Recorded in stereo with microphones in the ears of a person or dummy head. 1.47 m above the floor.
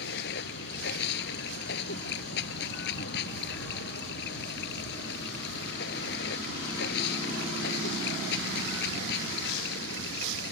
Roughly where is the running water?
Left.